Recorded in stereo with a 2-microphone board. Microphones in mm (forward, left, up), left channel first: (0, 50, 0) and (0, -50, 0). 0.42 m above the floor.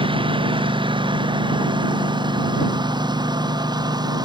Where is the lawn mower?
55° right (ahead or behind); by 4.2 s 40° right (ahead or behind).